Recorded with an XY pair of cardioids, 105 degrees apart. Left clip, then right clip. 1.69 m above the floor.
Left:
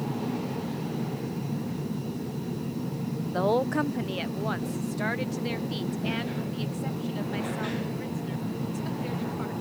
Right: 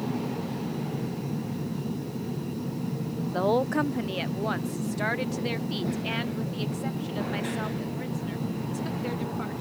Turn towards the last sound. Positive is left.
turn(degrees=-20)